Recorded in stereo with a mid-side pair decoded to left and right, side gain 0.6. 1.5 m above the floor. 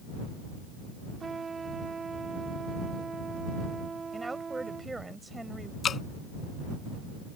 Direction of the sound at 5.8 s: 40° left.